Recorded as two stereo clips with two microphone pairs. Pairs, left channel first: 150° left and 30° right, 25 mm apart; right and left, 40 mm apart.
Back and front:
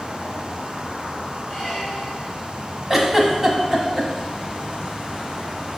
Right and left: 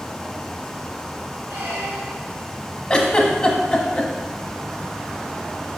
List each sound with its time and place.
1.5 s a squeak: 70° left, 3 m
2.9 s a giggle: 65° right, 1.1 m